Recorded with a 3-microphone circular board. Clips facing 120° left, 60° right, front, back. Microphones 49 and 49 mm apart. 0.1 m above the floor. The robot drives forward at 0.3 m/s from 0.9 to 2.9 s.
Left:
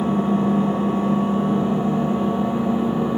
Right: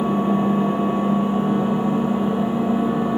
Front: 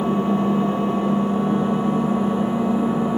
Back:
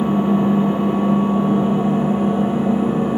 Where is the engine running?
120° right, 2.5 m; by 3.2 s 130° right, 3 m.